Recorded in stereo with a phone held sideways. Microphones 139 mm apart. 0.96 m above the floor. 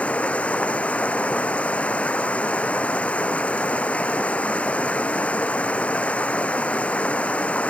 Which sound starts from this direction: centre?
Running water, at 0.0 s.